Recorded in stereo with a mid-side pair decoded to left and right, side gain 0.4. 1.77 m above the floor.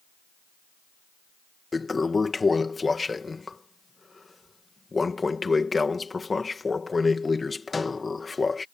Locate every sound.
1.7 s a toilet flushing: 30° left